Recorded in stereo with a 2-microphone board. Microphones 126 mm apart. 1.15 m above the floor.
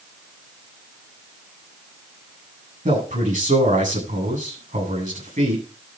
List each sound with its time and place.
2.9 s a man speaking: 85° right, 8.5 m